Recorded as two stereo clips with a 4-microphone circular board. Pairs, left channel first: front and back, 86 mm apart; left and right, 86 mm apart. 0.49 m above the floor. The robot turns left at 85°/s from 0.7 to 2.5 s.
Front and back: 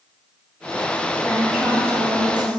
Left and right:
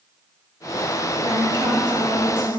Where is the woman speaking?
70° right, 3 m; by 2.6 s straight behind, 3 m.